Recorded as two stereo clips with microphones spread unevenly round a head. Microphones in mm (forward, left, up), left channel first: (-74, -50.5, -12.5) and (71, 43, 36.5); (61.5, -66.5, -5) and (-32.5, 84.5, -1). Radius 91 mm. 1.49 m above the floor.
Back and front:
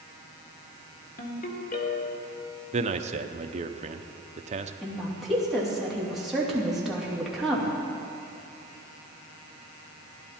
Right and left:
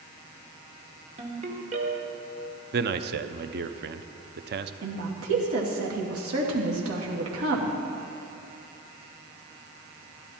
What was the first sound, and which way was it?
A ringtone, 165° left.